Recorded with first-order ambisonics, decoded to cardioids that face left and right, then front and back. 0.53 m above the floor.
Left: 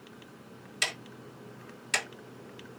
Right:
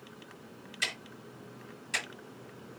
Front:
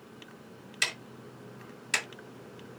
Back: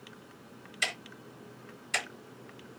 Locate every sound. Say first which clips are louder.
0.8 s ticking: left 2 dB, front 1 dB; 35° left, 1.9 m